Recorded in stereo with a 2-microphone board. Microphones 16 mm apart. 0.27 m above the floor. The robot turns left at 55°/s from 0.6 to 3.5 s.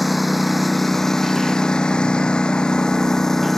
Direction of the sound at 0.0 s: Straight behind.